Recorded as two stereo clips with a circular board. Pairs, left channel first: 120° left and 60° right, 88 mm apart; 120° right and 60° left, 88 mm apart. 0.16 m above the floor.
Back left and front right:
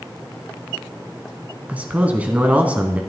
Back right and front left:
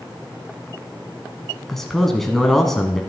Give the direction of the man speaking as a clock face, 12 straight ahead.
1 o'clock.